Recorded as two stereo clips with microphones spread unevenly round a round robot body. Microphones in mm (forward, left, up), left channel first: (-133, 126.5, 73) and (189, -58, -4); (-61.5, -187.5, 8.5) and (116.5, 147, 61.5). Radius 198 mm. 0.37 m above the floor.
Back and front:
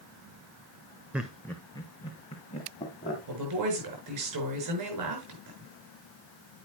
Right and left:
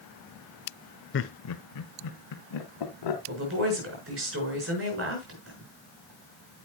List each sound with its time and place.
1.1 s laughter: 100° right, 0.9 m; by 3.2 s 135° right, 2.5 m
3.3 s a woman speaking: 5° left, 7 m